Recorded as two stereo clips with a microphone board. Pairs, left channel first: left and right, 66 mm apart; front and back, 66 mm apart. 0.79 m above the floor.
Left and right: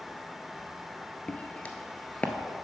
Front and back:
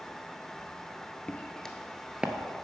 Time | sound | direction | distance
1.3 | footsteps | 40° left | 0.8 m